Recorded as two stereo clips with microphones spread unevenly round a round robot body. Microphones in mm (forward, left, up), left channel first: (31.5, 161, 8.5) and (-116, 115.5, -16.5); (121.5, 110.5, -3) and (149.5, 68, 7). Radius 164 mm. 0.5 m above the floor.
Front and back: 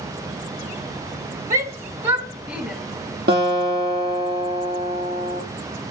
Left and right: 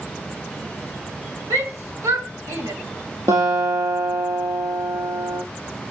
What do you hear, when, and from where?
1.5 s a shout: 110° right, 2.5 m; by 2.8 s 75° right, 2.5 m
3.3 s a guitar: 115° right, 5 m